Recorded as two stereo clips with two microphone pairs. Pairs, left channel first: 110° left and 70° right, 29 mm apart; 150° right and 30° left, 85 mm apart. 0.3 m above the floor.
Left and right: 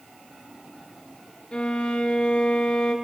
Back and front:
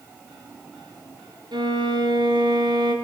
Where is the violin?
60° left, 2.5 m.